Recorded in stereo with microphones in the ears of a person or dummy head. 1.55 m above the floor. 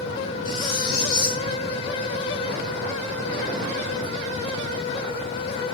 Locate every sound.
0.5 s cutlery clinking: 25° left (ahead or behind), 3 m